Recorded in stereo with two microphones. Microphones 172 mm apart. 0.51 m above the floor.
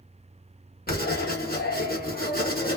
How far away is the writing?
About 1.0 m.